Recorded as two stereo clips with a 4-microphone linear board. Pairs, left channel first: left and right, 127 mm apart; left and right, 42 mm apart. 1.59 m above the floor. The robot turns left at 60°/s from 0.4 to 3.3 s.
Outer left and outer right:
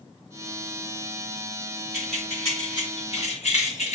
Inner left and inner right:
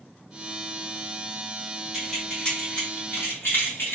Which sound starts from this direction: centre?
Keys jangling, at 1.9 s.